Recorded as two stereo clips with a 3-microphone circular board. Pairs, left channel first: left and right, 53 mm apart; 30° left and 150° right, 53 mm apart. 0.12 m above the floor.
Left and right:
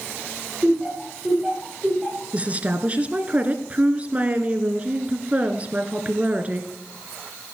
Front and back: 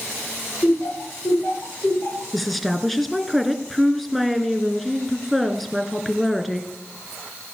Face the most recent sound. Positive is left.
turn(degrees=-60)